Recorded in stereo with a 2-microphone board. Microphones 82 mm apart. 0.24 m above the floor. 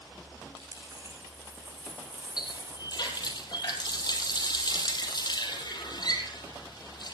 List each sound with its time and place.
0.6 s a dropped coin: 40° right (ahead or behind), 4.5 m
2.4 s a running tap: 55° left (ahead or behind), 5 m